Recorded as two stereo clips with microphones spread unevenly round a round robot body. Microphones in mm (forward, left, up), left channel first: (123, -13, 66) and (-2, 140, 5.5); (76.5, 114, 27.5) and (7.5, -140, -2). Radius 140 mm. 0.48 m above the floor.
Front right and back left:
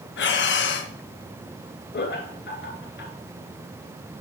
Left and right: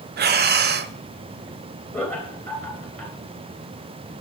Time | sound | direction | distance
0.2 | breathing | 50° right | 0.5 m
1.9 | laughter | 10° right | 2.5 m